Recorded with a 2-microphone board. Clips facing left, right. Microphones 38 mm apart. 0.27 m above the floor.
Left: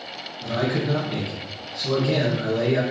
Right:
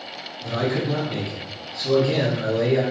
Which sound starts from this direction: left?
A man speaking, at 0.4 s.